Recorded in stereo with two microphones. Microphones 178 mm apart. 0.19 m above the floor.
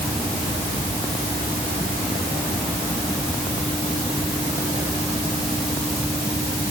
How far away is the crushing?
I don't hear crushing.